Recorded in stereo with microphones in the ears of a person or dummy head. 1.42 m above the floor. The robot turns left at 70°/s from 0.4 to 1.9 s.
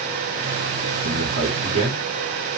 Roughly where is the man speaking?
Right.